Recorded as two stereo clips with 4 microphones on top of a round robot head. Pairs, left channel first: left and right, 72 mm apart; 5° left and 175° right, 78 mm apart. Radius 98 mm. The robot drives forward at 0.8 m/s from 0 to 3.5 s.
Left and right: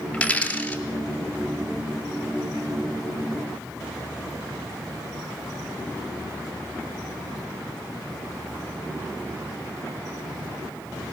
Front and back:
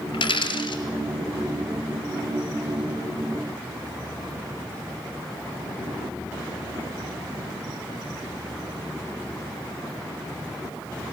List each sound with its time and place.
0.1 s a dropped coin: 15° left, 3.5 m